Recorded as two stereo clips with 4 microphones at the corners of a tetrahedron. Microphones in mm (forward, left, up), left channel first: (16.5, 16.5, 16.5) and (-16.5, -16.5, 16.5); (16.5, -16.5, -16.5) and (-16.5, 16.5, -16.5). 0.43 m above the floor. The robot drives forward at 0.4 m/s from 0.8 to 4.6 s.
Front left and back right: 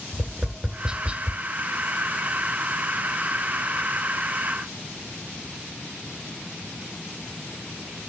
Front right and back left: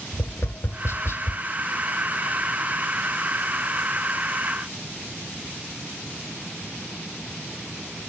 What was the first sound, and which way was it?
Tapping, 65° right.